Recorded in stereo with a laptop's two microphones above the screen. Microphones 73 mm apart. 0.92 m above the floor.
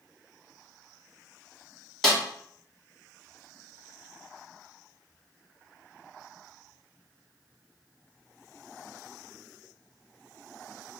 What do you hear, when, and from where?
2.0 s a snare drum: centre (ahead or behind), 0.8 m